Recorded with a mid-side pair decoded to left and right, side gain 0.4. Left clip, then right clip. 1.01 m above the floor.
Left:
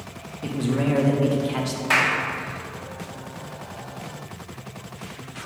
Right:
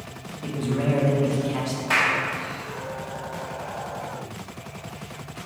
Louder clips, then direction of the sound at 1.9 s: Left 1 dB; 40° left.